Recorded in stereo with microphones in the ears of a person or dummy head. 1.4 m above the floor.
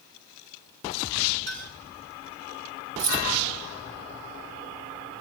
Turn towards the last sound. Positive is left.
turn(degrees=-45)  # may be behind; listen again after turning